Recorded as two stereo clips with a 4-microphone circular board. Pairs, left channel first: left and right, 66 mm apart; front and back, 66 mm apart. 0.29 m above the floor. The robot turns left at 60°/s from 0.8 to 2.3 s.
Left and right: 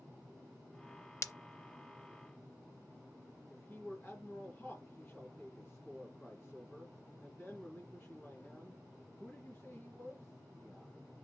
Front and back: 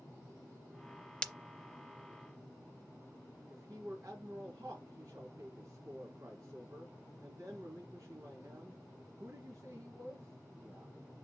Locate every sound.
1.2 s breaking glass: 70° left, 0.6 m; by 1.3 s 65° left, 0.6 m
3.5 s a man speaking: 155° left, 2.5 m